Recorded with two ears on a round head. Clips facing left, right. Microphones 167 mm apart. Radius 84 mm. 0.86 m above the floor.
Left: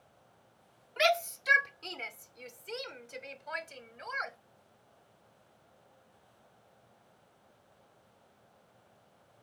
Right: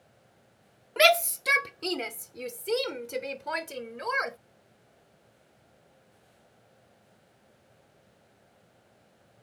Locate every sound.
1.0 s a shout: 65° right (ahead or behind); by 4.4 s 70° right (ahead or behind)